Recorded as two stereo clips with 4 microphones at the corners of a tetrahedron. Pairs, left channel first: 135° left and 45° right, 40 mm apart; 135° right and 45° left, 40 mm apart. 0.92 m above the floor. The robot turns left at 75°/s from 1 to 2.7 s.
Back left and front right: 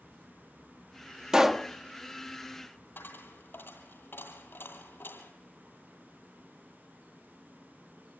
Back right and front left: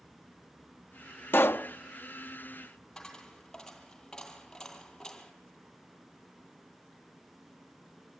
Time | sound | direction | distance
1.3 | a pop | 120° right | 0.5 m
3.0 | a dropped coin | 150° left | 2.5 m